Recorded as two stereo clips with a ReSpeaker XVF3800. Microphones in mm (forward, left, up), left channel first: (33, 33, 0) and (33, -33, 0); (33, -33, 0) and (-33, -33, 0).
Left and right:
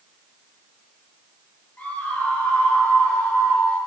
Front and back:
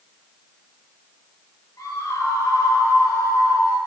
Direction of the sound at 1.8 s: 30° left.